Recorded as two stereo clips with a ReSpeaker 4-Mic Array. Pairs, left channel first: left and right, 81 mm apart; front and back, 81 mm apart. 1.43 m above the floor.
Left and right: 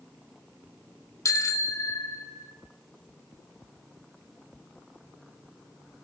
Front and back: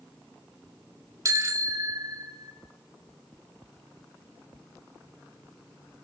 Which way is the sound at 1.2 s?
135° left.